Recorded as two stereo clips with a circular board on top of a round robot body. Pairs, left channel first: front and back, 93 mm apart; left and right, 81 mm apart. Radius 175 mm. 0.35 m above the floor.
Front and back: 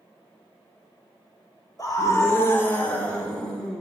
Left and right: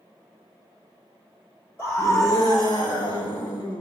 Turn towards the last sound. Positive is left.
turn(degrees=85)